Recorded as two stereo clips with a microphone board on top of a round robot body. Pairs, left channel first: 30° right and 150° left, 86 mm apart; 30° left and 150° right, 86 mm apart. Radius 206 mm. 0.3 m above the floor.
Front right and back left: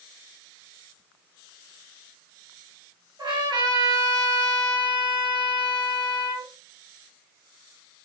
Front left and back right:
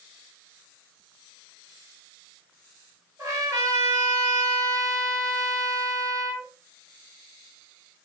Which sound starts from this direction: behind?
A trumpet, at 3.2 s.